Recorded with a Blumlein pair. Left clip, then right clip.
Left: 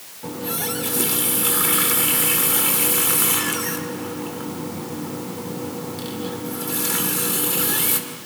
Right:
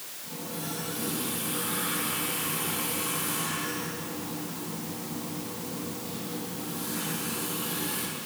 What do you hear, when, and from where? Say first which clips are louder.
0.2 s a running tap: left 11 dB; 50° left, 2.5 m